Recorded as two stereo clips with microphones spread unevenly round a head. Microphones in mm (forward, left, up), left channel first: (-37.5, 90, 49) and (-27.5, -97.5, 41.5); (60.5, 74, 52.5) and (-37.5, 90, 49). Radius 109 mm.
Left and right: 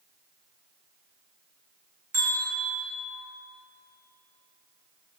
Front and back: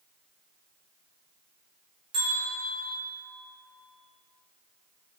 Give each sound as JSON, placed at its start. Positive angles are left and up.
{"t": 2.1, "sound": "a bell", "azimuth_deg": -160, "distance_m": 2.0}